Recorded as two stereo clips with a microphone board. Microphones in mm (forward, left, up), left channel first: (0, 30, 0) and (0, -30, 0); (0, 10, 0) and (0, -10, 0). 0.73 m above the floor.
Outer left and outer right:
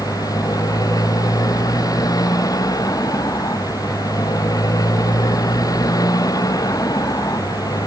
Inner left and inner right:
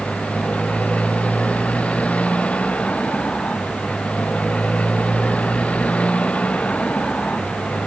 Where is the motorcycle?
90° left; by 7.9 s 85° left.